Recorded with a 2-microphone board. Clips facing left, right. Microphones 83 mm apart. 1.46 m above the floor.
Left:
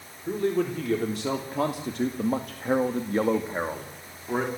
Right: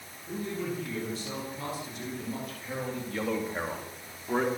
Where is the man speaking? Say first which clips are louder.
Left 9 dB; 65° left (ahead or behind), 4.5 m; by 4.5 s centre (ahead or behind), 3 m.